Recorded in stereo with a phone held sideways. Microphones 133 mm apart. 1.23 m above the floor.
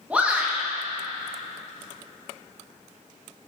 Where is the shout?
10° right (ahead or behind), 1.6 m.